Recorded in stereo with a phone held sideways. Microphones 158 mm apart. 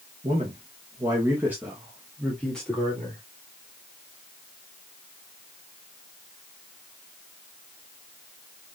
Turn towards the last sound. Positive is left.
turn(degrees=10)  # may be behind; listen again after turning